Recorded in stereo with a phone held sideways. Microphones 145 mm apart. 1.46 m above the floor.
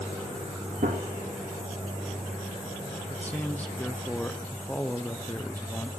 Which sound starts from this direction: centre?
A man speaking, at 3.1 s.